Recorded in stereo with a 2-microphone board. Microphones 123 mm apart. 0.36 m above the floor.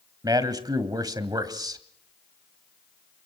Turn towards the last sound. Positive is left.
turn(degrees=-35)  # may be behind; listen again after turning